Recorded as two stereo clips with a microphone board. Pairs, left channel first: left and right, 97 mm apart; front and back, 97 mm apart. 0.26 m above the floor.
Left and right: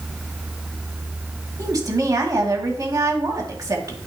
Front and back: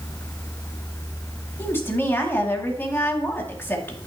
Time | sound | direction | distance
1.6 | a woman speaking | 55° right | 2 m